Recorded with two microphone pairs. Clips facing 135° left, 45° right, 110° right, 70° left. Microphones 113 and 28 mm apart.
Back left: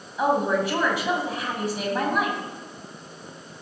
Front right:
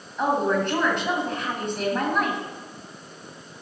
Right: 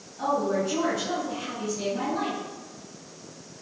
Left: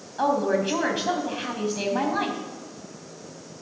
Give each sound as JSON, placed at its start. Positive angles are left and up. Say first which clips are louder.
{"t": 0.2, "sound": "a woman speaking", "louder": "even, left 3 dB", "azimuth_deg": 50, "distance_m": 3.5}